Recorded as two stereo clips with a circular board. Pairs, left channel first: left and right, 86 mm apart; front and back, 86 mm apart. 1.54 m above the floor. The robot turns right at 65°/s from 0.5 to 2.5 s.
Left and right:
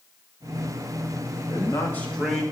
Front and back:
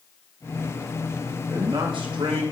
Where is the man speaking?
130° left, 2 m; by 2.4 s 170° right, 2 m.